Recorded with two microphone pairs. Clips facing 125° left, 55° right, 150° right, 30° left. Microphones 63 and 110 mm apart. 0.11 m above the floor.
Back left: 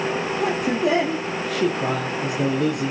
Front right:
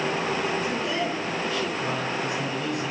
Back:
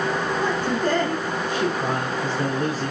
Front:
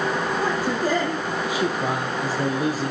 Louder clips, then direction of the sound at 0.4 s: Back left 5 dB, back 1 dB; 115° left.